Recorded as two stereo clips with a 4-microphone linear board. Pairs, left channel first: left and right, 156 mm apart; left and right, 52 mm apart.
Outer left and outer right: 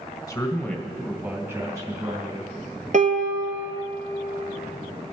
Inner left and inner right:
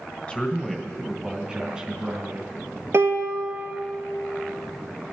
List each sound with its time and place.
0.3 s a man speaking: 25° left (ahead or behind), 1.6 m; by 2.5 s 30° right (ahead or behind), 3.5 m
2.9 s a piano: 55° right (ahead or behind), 1.2 m